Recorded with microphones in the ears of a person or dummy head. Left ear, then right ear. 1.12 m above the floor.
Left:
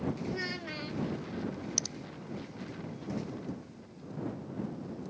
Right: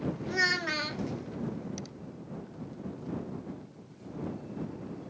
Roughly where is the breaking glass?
No breaking glass in this recording.